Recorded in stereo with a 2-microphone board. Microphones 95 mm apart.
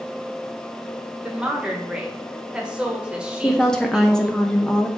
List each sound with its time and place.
1.2 s a woman speaking: 10° right (ahead or behind), 1.4 m
3.4 s a woman speaking: 5° left (ahead or behind), 1.0 m